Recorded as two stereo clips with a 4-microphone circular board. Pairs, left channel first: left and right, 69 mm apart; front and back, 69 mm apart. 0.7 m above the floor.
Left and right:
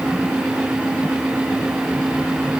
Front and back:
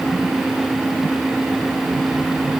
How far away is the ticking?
I don't hear ticking.